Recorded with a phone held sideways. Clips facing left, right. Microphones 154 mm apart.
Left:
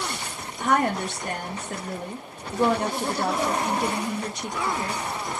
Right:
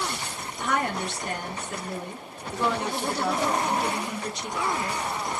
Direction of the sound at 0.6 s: 50° left (ahead or behind).